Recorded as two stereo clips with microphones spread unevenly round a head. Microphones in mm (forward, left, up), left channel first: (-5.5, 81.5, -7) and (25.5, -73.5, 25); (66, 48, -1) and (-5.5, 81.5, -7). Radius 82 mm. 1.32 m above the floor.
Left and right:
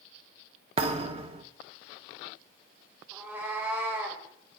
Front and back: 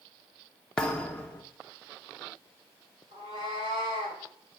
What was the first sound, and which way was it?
A thud, 95° right.